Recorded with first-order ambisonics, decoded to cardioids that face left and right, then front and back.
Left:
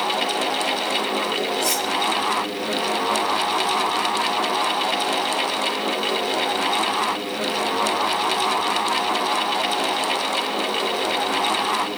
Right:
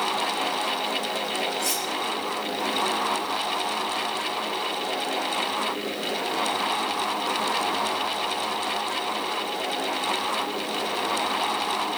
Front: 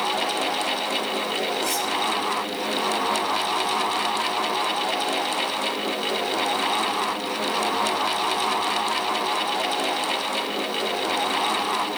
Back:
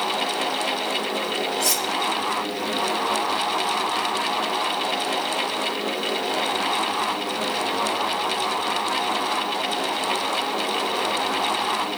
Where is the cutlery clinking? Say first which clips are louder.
Left 5 dB, back 2 dB; 170° left, 2 m.